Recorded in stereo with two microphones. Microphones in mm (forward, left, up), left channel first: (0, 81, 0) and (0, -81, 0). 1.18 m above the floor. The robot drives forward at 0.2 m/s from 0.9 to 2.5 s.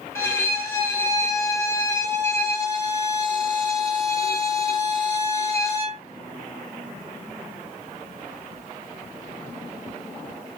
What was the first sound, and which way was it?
A violin, 15° left (ahead or behind).